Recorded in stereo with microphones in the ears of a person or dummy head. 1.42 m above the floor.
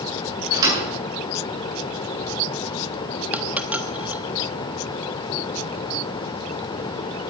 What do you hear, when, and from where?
0.5 s a thud: 20° right (ahead or behind), 8.5 m
3.3 s a dropped coin: 5° right (ahead or behind), 1.3 m